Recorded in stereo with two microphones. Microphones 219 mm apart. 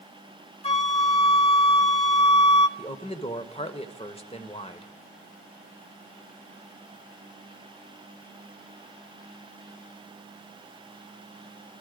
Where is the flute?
25° left (ahead or behind), 1.3 m.